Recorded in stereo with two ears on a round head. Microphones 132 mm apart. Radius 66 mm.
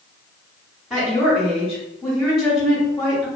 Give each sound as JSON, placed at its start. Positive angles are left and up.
{"t": 0.9, "sound": "a woman speaking", "side_deg": 0, "distance_m": 1.3}